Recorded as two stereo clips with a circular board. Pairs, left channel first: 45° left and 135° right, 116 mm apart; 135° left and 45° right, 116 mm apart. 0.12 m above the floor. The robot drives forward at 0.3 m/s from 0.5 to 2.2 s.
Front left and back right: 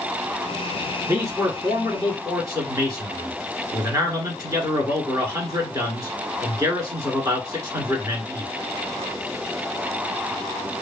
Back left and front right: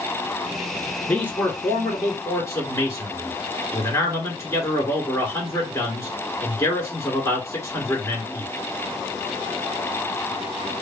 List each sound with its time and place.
1.1 s a man speaking: 170° right, 1.2 m; by 8.5 s 175° right, 1.3 m